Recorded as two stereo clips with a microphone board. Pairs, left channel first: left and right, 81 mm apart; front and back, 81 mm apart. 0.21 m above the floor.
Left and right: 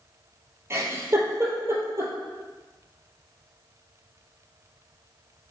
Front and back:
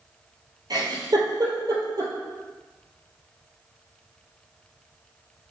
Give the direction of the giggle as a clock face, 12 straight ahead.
5 o'clock.